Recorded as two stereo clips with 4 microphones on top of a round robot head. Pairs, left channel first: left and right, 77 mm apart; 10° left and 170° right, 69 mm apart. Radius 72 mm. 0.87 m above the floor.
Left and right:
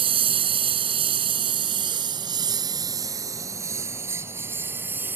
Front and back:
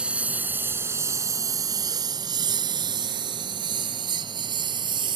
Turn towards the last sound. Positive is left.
turn(degrees=-160)